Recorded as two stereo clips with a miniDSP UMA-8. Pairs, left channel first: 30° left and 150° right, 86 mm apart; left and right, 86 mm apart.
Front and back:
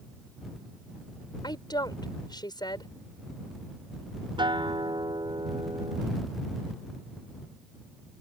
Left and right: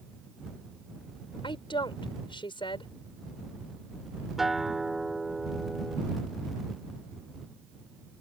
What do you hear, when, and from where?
1.4 s a woman speaking: 70° left
4.4 s a guitar: 175° right